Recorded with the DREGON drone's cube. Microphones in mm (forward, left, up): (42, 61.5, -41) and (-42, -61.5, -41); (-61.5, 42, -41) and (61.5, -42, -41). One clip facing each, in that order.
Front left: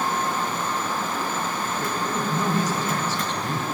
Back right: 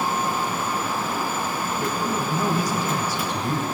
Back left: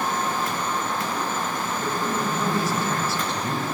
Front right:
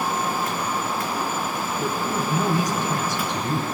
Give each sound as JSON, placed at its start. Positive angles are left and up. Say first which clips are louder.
{"t": 1.8, "sound": "a man speaking", "louder": "back right 2 dB, front right 1 dB", "azimuth_deg": -70, "distance_m": 1.6}